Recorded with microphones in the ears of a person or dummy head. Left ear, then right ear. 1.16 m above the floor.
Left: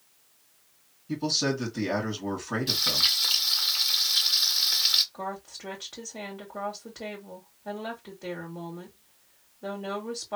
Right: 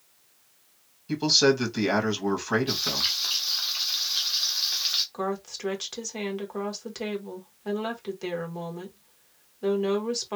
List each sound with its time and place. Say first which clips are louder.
1.1 s a man speaking: right 6 dB; 55° right (ahead or behind), 1.8 m
2.7 s frying: left 3 dB; 10° left (ahead or behind), 0.8 m
5.1 s a woman speaking: right 5 dB; 75° right (ahead or behind), 1.6 m